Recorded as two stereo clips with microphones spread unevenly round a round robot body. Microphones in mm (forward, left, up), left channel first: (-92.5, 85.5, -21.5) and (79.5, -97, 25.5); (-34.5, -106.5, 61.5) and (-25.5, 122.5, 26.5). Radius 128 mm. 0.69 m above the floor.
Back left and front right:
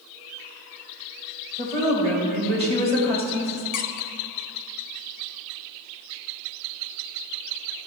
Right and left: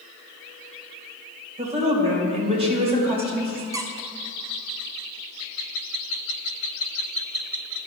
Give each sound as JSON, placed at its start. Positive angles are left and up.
{"t": 1.6, "sound": "a woman speaking", "azimuth_deg": 20, "distance_m": 2.5}
{"t": 3.7, "sound": "a squeak", "azimuth_deg": 165, "distance_m": 0.7}